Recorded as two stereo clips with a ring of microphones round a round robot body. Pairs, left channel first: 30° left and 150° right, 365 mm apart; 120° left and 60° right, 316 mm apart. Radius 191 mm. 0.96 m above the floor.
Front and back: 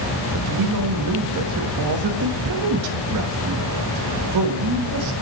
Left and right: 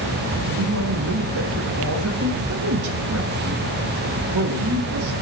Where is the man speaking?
110° right, 1.4 m.